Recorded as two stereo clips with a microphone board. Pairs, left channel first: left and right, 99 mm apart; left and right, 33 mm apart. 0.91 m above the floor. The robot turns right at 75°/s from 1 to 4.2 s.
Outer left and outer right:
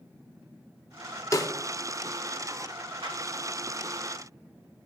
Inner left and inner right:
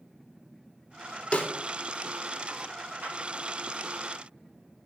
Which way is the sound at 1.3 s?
30° left (ahead or behind).